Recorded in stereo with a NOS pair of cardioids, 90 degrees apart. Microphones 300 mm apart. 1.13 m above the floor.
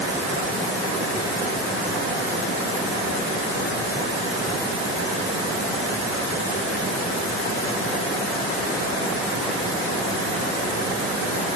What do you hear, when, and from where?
Only background noise.